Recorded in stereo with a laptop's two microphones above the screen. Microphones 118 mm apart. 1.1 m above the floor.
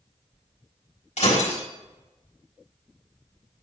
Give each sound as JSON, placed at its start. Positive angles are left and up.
{"t": 1.2, "sound": "breaking glass", "side_deg": 80, "distance_m": 4.5}